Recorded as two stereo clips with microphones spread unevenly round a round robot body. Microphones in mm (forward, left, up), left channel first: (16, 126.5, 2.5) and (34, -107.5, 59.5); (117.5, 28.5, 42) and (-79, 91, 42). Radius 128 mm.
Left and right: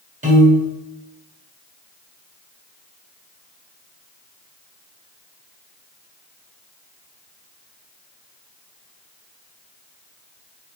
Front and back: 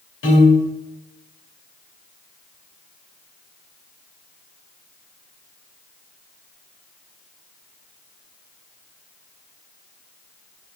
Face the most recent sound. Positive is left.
turn(degrees=-20)